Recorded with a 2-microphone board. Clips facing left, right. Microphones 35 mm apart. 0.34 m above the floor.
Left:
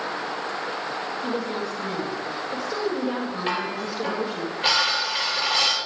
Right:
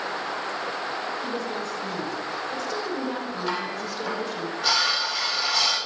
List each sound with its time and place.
1.2 s a woman speaking: 15° left (ahead or behind), 1.7 m
3.5 s dishes clattering: 50° left (ahead or behind), 6 m